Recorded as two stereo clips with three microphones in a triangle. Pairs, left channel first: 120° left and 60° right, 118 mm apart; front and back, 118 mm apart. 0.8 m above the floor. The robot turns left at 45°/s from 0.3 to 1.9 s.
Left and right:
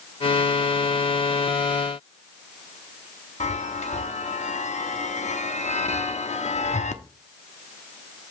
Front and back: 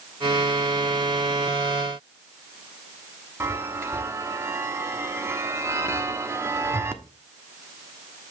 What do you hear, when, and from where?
3.4 s a chime: 110° left, 1.0 m